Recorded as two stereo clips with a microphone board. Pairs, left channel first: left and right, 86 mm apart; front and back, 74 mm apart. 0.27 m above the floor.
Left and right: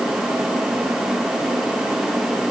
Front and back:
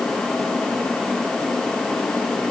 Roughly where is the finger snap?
No finger snap in this recording.